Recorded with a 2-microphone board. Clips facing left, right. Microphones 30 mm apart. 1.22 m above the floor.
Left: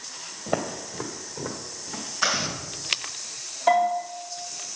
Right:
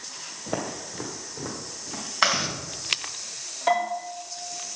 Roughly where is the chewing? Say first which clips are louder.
Right 2 dB; right.